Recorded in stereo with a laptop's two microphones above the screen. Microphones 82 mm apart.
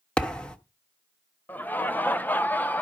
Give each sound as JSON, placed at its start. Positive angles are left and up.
{"t": 0.2, "sound": "a thud", "side_deg": 10, "distance_m": 1.2}
{"t": 1.5, "sound": "laughter", "side_deg": 20, "distance_m": 0.5}